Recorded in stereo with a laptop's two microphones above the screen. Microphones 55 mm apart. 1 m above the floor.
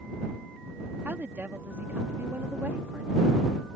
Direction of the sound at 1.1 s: 35° right (ahead or behind).